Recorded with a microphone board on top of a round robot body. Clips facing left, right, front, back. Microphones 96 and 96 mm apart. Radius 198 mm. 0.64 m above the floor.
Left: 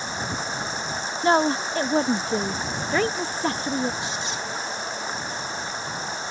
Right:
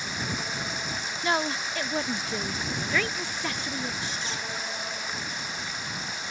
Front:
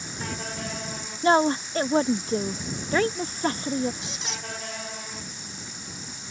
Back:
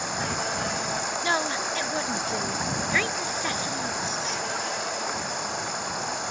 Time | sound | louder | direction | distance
0.0 | running water | left 4 dB, back 6 dB | 150° left | ?
1.2 | a woman speaking | left 8 dB, front 9 dB | 45° left | ?
4.0 | a squeak | left 4 dB, back 7 dB | 20° left | ?